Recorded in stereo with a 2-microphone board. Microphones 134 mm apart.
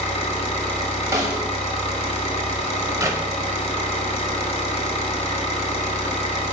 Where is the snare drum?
25° right (ahead or behind), 1.4 m.